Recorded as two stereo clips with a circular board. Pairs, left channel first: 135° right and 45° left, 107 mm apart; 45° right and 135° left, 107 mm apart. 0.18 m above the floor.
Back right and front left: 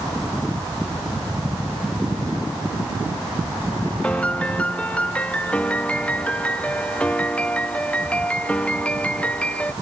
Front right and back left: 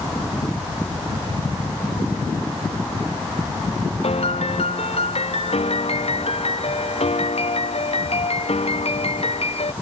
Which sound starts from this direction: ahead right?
A piano, at 4.0 s.